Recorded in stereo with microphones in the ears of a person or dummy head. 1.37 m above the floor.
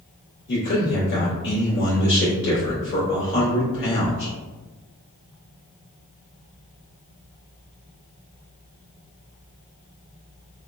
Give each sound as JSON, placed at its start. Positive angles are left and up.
{"t": 0.5, "sound": "a man speaking", "side_deg": 65, "distance_m": 1.6}